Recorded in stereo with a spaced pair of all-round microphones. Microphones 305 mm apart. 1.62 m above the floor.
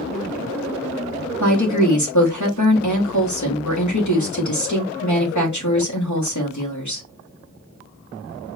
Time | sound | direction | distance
1.4 | a woman speaking | 70° left (ahead or behind) | 1.9 m